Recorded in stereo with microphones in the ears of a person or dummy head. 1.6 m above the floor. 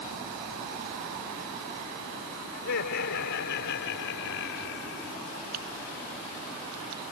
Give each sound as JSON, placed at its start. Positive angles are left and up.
{"t": 2.5, "sound": "laughter", "side_deg": 65}
{"t": 5.5, "sound": "typing on a keyboard", "side_deg": -85}